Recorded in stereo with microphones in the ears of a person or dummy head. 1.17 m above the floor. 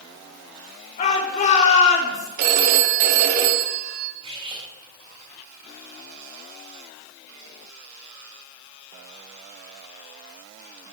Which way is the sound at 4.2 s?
30° right (ahead or behind).